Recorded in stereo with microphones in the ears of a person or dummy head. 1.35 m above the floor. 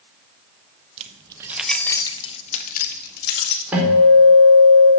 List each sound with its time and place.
1.0 s keys jangling: 40° right (ahead or behind), 1.0 m; by 3.6 s 60° left (ahead or behind), 2 m
3.7 s a guitar: 10° right (ahead or behind), 4.5 m